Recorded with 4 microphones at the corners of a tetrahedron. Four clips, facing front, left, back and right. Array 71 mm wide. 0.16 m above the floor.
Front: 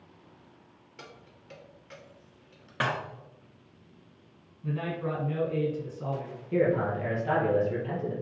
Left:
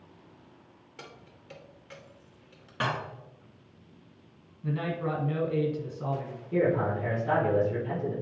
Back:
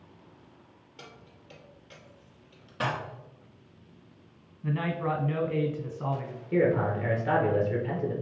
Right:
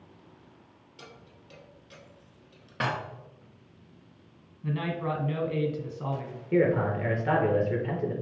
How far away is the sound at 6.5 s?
About 3 m.